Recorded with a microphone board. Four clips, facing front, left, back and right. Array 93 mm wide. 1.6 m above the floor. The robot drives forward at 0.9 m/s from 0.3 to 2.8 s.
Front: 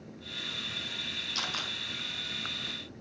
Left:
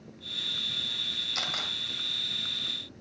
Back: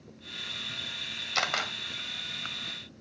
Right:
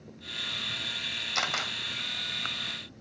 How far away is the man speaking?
No man speaking in this recording.